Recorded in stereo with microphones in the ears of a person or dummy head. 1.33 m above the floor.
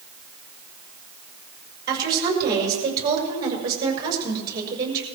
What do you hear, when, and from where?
1.9 s a woman speaking: 25° right (ahead or behind), 6 m